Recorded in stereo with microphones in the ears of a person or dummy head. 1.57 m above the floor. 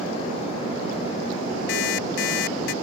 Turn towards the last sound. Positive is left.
turn(degrees=75)  # may be behind; listen again after turning